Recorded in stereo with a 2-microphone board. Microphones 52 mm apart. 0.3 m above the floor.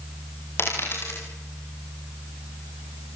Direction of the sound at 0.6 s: 45° left (ahead or behind).